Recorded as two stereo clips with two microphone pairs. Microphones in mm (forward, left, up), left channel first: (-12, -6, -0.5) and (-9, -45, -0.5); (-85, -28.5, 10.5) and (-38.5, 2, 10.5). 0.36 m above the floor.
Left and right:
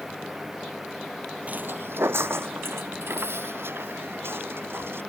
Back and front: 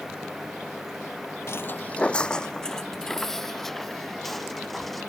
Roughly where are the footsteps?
Behind right.